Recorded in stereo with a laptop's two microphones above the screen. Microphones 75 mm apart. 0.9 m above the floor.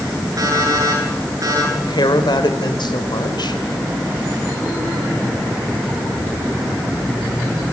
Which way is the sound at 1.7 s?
80° left.